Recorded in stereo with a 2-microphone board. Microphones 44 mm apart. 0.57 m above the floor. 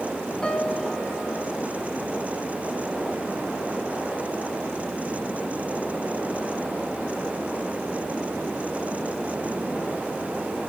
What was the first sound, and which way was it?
A piano, 15° left (ahead or behind).